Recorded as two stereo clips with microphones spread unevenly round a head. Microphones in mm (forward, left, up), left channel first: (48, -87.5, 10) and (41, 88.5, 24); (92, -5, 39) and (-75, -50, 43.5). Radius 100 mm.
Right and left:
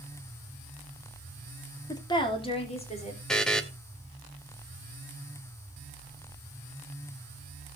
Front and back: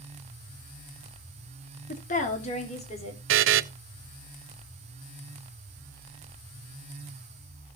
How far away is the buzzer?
About 0.5 m.